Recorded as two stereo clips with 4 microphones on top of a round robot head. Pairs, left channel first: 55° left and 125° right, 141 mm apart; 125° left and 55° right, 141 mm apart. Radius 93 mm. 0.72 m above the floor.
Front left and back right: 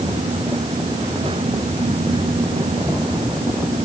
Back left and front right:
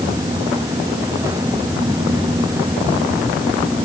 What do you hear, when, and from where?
Only background noise.